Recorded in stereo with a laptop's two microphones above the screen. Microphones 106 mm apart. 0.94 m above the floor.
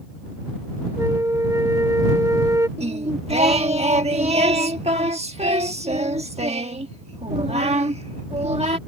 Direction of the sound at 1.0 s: 30° right (ahead or behind).